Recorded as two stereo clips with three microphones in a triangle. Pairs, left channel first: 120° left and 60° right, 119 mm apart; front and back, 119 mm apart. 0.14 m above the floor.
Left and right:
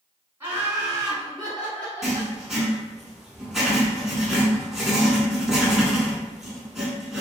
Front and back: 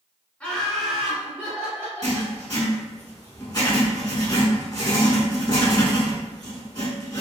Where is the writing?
25° left, 0.8 m.